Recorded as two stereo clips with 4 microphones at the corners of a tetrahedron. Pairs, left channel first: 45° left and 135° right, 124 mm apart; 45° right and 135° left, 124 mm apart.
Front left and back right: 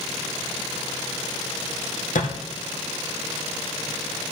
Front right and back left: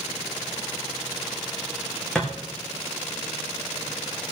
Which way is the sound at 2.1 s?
40° left.